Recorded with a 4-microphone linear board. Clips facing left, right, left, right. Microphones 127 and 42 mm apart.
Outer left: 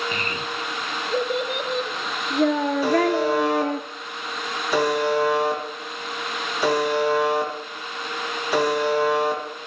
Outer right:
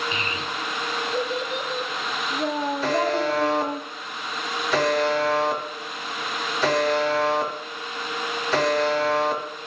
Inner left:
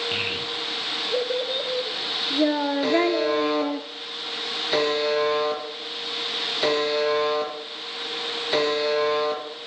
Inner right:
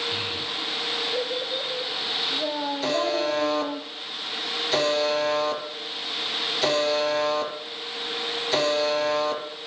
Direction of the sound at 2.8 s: 10° left (ahead or behind).